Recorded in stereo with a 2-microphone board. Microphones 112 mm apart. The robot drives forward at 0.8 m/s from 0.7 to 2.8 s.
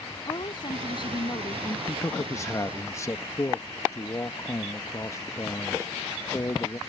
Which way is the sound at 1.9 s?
25° left (ahead or behind).